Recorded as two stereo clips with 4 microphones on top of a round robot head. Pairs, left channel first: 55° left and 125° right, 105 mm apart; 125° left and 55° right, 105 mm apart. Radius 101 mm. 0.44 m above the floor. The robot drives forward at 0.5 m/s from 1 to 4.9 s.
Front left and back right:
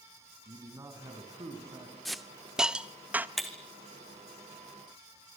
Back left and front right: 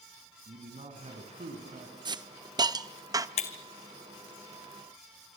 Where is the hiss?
30° right, 1.4 m; by 3.3 s 65° right, 1.1 m.